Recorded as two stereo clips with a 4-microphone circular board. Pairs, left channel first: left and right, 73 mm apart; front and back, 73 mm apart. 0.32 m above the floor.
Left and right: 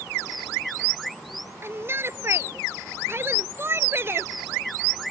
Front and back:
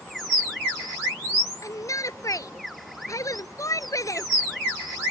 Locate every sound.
1.6 s a shout: 35° right